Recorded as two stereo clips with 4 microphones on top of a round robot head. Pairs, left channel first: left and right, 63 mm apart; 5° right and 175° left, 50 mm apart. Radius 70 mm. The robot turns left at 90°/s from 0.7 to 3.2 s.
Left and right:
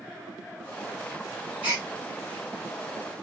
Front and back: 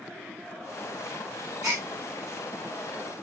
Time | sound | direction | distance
1.6 | a gasp | 135° right | 1.2 m